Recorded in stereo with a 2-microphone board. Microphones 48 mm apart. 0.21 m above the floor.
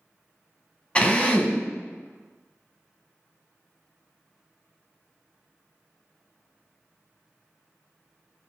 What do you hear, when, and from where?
0.9 s a drill: 25° left (ahead or behind), 0.6 m